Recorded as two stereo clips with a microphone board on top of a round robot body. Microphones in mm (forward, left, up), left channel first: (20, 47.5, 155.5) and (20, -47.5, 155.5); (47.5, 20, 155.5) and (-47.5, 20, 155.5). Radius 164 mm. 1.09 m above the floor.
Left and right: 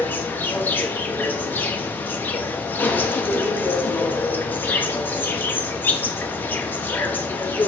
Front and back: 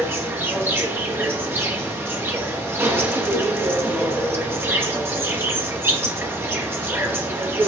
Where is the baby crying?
I don't hear a baby crying.